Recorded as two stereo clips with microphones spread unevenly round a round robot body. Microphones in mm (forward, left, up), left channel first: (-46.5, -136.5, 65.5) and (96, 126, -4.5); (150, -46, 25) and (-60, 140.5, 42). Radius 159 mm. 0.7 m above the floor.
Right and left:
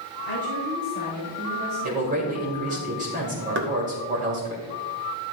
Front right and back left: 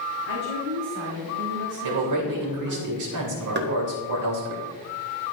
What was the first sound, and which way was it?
A woman speaking, 105° left.